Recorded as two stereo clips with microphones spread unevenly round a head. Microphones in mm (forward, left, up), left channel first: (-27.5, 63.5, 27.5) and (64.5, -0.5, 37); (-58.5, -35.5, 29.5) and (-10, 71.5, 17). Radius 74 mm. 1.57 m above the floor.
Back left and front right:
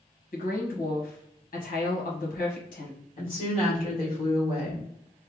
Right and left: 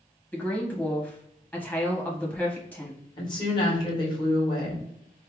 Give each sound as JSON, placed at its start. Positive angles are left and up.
{"t": 0.3, "sound": "a woman speaking", "azimuth_deg": 170, "distance_m": 1.2}
{"t": 3.2, "sound": "a woman speaking", "azimuth_deg": -160, "distance_m": 1.7}